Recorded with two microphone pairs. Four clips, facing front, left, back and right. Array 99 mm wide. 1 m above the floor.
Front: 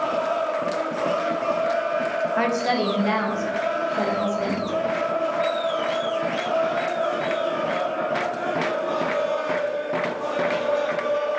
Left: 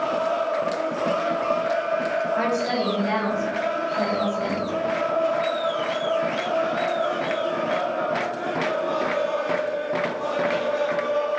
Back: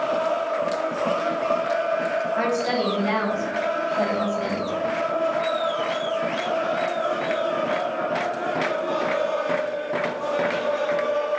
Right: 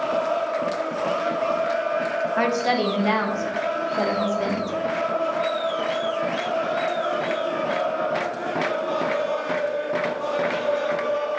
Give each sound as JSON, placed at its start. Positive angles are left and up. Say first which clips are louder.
{"t": 2.4, "sound": "a woman speaking", "louder": "right 2 dB, front 3 dB", "azimuth_deg": -70, "distance_m": 0.7}